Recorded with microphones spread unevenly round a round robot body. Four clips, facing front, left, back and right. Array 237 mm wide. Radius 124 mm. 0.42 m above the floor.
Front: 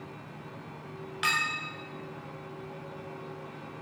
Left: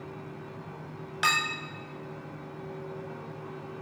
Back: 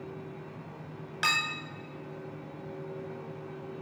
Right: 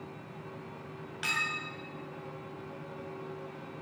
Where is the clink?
130° left, 0.9 m.